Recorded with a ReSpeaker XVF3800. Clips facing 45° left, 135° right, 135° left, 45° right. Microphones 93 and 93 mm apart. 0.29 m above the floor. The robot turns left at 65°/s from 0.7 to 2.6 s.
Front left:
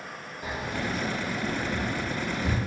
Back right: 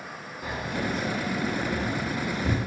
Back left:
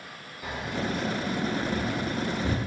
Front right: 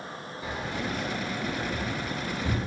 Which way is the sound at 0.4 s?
110° right.